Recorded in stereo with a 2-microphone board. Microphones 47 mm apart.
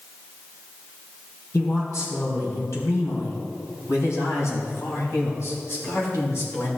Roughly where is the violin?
I don't hear a violin.